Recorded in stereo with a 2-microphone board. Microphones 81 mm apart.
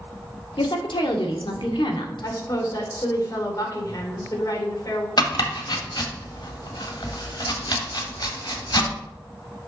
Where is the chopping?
60° left (ahead or behind), 1.5 m.